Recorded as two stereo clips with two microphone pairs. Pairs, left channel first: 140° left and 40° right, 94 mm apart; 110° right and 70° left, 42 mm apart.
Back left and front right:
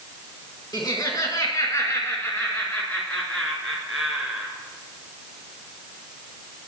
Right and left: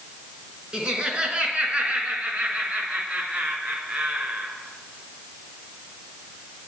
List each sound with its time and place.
0.7 s laughter: 125° left, 2.0 m; by 4.5 s 45° left, 2.0 m